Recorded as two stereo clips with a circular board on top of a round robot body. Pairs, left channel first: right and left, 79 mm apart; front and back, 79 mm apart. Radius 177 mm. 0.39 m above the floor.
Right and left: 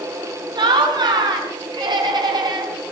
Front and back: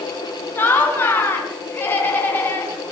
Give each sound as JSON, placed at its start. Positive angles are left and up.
{"t": 0.6, "sound": "laughter", "azimuth_deg": 65, "distance_m": 5.0}